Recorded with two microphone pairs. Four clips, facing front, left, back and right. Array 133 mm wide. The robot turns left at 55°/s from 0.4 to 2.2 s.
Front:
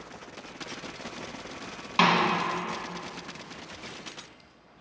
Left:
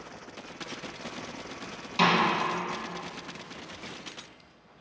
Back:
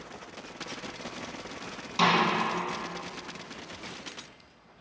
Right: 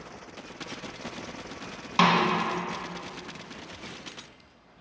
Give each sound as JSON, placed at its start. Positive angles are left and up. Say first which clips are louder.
{"t": 2.0, "sound": "a snare drum", "louder": "right 2 dB, front 2 dB", "azimuth_deg": -55, "distance_m": 0.7}